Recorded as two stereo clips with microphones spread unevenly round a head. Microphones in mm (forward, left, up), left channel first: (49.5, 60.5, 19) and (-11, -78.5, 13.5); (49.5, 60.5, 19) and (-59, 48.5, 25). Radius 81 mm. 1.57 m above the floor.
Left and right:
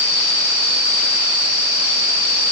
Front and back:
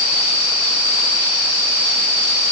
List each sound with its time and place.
Only background noise.